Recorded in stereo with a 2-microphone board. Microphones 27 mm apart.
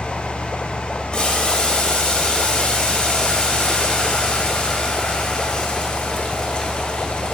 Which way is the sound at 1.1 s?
35° left (ahead or behind).